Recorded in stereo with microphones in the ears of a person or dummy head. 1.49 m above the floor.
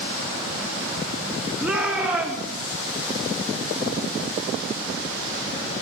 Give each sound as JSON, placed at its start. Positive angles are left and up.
{"t": 1.6, "sound": "a shout", "side_deg": -10, "distance_m": 3.5}